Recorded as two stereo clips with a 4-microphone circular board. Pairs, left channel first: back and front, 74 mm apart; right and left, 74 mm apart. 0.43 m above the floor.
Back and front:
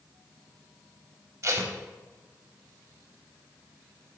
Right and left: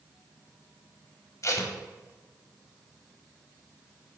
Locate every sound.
1.4 s tape being pulled: 45° right, 0.7 m